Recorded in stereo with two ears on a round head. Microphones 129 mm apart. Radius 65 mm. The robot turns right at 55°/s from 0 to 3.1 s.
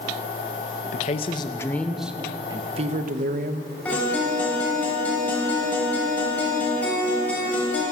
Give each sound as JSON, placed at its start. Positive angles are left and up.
{"t": 0.9, "sound": "a man speaking", "azimuth_deg": 125, "distance_m": 0.8}
{"t": 3.9, "sound": "a guitar", "side_deg": 10, "distance_m": 4.5}